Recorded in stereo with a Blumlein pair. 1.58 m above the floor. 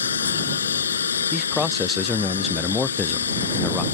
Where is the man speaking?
15° left.